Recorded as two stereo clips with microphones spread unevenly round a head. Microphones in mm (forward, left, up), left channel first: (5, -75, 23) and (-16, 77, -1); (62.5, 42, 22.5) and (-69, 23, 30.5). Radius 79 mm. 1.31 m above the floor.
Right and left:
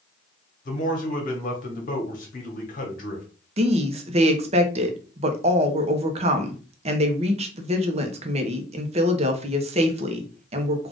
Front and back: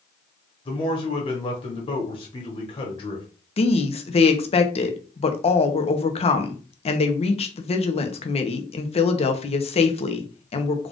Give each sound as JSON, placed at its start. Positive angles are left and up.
{"t": 0.7, "sound": "a man speaking", "azimuth_deg": -45, "distance_m": 1.3}
{"t": 3.6, "sound": "a woman speaking", "azimuth_deg": 50, "distance_m": 0.8}